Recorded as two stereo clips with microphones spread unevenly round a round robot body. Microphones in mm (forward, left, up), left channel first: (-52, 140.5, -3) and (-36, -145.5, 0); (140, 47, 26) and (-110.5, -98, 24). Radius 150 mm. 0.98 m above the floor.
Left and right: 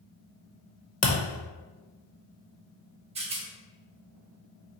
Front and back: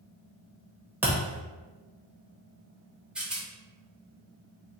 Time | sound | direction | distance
1.0 | a thud | 130° left | 0.8 m
3.1 | a rattle | 65° right | 0.7 m